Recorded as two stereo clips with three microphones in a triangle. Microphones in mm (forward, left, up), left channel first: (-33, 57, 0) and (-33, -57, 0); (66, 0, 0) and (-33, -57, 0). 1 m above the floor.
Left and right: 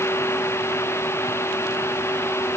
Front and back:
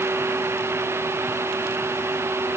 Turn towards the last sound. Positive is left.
No sound to turn to.